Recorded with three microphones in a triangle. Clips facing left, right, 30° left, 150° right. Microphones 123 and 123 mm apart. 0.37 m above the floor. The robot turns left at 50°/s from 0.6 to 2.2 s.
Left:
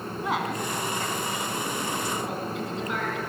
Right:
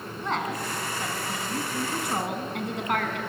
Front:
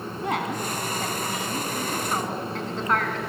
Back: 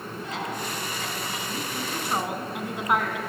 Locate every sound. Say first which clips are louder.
0.2 s a woman speaking: left 1 dB, front 6 dB; 5° left, 2.5 m; by 3.2 s 75° right, 2.5 m